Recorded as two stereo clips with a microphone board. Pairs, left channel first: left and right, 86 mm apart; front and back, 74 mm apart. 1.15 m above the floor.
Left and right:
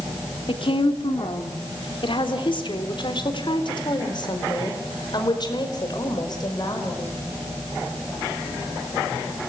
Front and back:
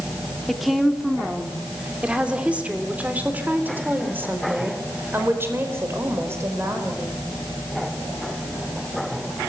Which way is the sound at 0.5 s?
90° left.